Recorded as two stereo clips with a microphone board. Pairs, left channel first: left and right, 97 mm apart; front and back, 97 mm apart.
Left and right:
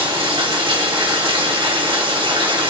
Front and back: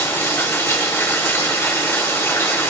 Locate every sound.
0.0 s running water: 65° right, 1.7 m